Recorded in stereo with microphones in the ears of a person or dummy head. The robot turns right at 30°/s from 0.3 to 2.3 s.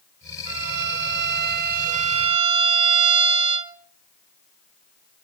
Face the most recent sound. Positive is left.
turn(degrees=-40)